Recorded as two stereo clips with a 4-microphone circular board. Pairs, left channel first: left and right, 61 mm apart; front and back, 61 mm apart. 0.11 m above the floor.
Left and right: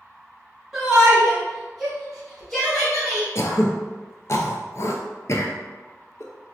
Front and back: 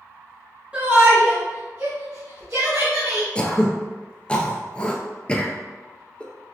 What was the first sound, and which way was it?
A shout, 160° right.